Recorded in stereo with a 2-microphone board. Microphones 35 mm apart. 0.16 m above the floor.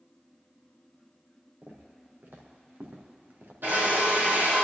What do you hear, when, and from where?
1.6 s footsteps: 70° right (ahead or behind), 3.5 m; by 3.5 s 80° right, 3 m
3.6 s a drill: 75° right (ahead or behind), 5 m